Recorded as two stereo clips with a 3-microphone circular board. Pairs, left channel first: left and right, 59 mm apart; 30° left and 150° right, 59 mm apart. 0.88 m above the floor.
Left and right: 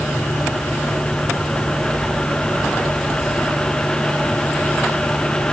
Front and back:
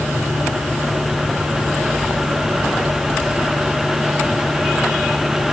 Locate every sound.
Only background noise.